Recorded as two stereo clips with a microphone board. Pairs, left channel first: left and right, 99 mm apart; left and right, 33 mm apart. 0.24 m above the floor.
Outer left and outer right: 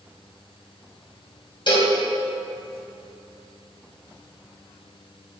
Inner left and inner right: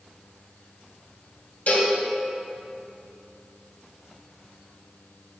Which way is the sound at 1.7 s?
50° left (ahead or behind).